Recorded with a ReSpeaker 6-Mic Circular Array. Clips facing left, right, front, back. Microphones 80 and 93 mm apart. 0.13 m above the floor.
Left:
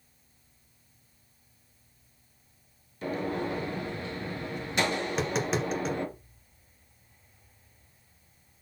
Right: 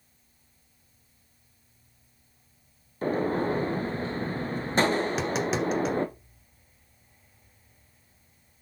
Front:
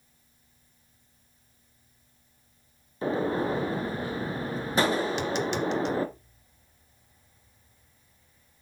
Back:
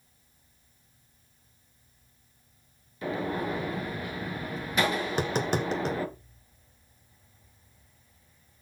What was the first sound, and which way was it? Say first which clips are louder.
A gunshot: right 5 dB, front 4 dB; 50° right.